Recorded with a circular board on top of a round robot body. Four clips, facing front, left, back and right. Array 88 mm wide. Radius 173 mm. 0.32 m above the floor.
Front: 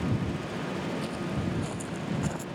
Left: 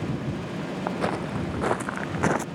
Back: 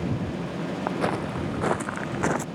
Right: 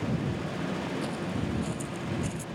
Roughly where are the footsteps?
Behind left.